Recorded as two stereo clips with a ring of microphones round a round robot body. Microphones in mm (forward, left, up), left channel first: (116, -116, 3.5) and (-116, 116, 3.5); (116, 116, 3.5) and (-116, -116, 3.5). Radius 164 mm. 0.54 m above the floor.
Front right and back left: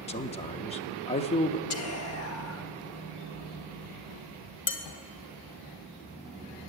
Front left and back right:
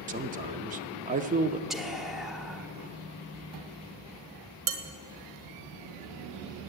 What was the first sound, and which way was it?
A man speaking, 95° right.